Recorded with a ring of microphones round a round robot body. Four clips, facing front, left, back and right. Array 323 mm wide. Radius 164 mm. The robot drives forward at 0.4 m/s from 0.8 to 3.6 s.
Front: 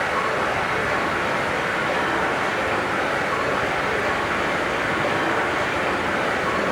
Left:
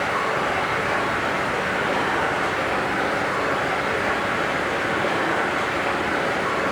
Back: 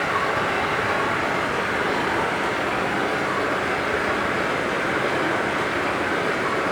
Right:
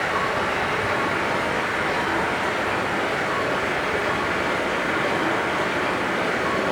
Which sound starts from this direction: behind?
Running water, at 0.0 s.